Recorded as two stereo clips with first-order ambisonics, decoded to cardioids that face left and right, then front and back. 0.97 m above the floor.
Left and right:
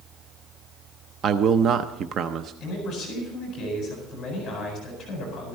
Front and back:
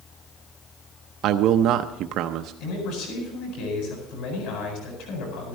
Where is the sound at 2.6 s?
20° left, 8.5 m.